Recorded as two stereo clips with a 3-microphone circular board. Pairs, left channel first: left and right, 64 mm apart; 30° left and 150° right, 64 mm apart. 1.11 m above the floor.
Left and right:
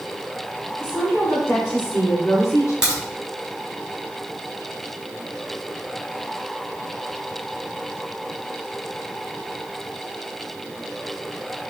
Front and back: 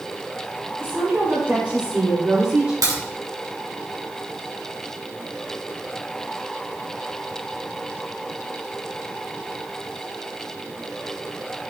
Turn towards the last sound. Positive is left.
turn(degrees=-170)